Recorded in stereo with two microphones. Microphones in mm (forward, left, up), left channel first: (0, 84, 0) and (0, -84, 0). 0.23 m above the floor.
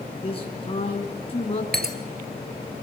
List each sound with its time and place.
0.1 s a man speaking: 35° left (ahead or behind), 3.5 m
1.7 s breaking glass: 70° right (ahead or behind), 1.6 m